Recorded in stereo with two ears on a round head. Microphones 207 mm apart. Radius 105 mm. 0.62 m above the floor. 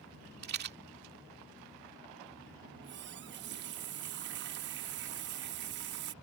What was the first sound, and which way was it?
A rattle, 45° right (ahead or behind).